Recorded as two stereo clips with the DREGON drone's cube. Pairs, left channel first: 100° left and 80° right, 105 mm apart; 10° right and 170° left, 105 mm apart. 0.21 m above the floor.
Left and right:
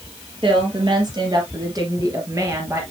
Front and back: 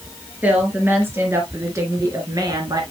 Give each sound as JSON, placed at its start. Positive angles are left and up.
{"t": 0.4, "sound": "a woman speaking", "azimuth_deg": -115, "distance_m": 3.5}